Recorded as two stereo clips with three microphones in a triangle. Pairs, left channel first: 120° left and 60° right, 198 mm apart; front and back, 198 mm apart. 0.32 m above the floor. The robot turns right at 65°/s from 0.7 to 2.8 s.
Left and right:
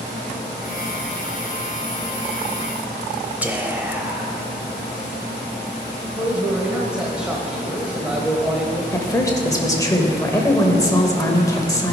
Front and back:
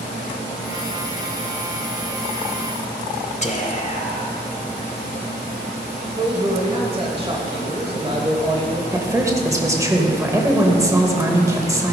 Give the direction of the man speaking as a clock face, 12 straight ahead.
5 o'clock.